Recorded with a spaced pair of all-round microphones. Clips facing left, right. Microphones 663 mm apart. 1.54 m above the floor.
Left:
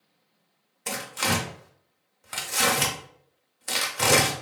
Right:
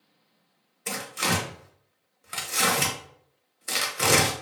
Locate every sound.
0.9 s tearing paper: 20° left (ahead or behind), 0.6 m